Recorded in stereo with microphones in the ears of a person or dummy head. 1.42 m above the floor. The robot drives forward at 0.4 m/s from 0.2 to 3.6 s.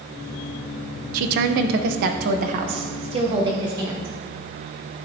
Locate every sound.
1.1 s a woman speaking: 55° right (ahead or behind), 0.6 m; by 4.2 s 30° right (ahead or behind), 1.0 m